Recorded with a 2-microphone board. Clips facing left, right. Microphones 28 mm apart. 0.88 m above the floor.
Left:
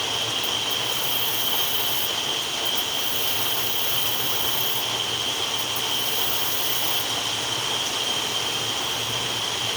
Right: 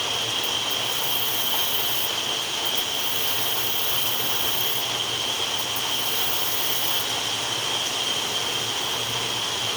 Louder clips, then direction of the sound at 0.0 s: Even; centre (ahead or behind).